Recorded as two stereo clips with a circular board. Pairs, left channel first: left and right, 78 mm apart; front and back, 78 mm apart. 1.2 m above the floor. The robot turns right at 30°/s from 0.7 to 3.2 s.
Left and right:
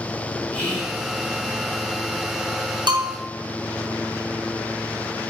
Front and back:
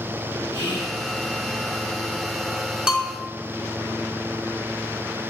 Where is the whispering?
20° left, 1.3 m; by 1.0 s 25° left, 1.3 m.